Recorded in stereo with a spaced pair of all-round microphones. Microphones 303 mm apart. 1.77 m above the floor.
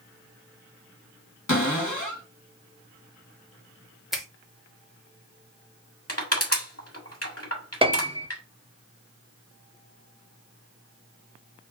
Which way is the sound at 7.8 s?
20° right (ahead or behind).